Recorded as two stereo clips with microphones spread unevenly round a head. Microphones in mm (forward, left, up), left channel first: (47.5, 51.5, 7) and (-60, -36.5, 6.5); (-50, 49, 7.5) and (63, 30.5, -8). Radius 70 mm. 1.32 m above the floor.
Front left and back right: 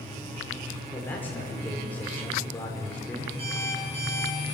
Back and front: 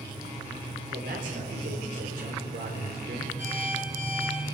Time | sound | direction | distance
0.9 | a man speaking | 40° right | 4.5 m
3.4 | an alarm clock | 90° right | 8 m